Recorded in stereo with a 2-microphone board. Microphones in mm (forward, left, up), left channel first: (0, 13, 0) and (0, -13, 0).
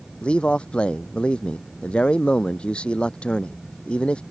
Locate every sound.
0.2 s a man speaking: 45° left (ahead or behind)